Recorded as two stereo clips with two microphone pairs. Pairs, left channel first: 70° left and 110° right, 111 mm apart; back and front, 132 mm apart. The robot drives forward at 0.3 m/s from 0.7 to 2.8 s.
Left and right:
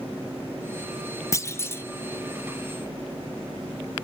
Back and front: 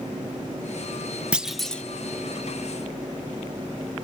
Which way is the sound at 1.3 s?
75° left.